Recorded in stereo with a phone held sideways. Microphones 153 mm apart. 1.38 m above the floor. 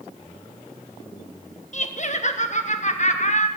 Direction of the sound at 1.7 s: 50° left (ahead or behind).